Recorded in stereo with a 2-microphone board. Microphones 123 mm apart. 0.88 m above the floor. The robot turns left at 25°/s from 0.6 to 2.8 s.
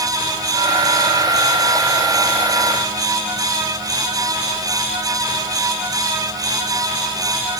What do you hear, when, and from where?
Only background noise.